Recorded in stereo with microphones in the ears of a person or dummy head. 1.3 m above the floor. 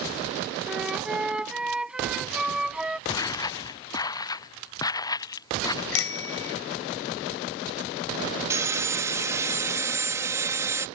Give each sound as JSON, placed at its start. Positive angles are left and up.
{"t": 0.7, "sound": "a flute", "side_deg": 0}
{"t": 3.1, "sound": "footsteps", "side_deg": 15}
{"t": 5.9, "sound": "a bicycle bell", "side_deg": 80}
{"t": 8.5, "sound": "sawing", "side_deg": -10}